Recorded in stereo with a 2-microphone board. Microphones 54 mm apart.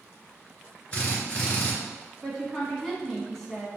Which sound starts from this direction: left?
A drill, at 0.9 s.